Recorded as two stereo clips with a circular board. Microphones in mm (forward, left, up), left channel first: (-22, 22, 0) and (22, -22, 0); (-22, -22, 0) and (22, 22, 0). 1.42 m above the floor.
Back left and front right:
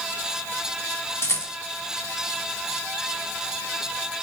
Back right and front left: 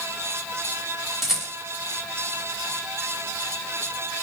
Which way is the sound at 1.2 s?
135° left.